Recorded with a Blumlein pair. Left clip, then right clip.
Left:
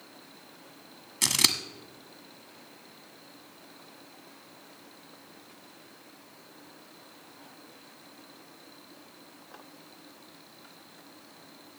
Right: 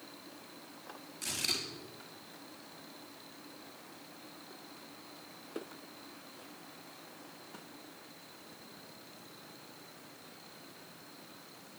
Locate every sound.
1.2 s scissors: 50° left, 1.3 m